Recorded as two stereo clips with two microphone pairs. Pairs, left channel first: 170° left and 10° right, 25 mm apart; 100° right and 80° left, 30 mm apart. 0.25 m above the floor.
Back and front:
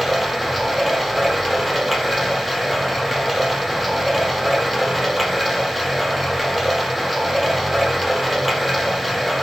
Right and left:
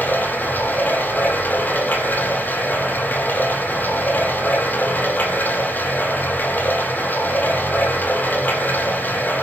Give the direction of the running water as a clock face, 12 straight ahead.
3 o'clock.